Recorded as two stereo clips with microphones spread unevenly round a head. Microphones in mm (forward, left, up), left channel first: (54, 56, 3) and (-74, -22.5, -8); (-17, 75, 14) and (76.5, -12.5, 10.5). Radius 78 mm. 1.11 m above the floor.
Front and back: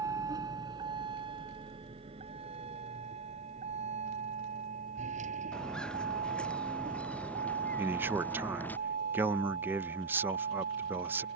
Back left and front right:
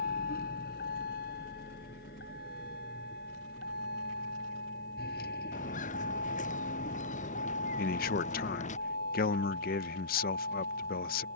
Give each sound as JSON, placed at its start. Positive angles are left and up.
{"t": 0.0, "sound": "a vehicle", "azimuth_deg": 140}
{"t": 5.5, "sound": "footsteps", "azimuth_deg": 115}
{"t": 7.8, "sound": "a man speaking", "azimuth_deg": 135}